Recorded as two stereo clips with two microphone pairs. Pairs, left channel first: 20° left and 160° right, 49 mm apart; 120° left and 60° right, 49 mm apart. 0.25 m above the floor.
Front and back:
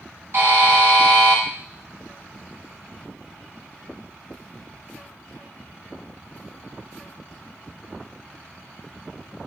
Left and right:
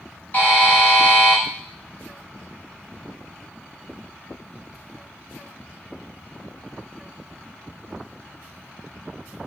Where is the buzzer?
165° left, 0.9 m.